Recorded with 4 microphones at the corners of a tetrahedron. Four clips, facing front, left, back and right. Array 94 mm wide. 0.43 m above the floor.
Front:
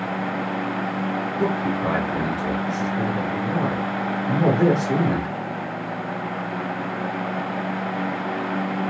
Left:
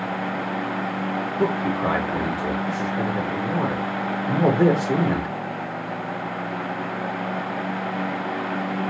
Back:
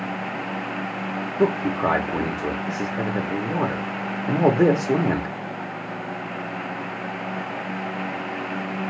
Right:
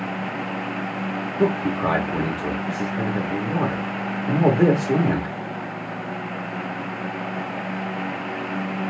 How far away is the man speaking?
About 0.8 m.